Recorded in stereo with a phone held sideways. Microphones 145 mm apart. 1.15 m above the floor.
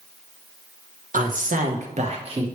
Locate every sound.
1.1 s a man speaking: 60° right (ahead or behind), 1.2 m; by 2.5 s 35° right (ahead or behind), 1.3 m